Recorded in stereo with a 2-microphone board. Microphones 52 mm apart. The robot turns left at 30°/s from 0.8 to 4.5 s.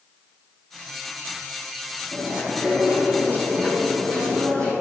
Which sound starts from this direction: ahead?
Chewing, at 2.1 s.